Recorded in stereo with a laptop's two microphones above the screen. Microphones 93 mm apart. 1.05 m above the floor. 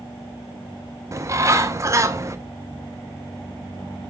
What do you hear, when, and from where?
1.1 s a bird: 35° right (ahead or behind), 0.5 m